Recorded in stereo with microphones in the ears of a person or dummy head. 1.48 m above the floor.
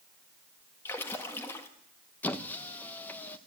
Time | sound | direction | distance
0.8 | a splash | 15° left (ahead or behind) | 1.6 m
2.2 | a squeak | 10° left (ahead or behind) | 1.0 m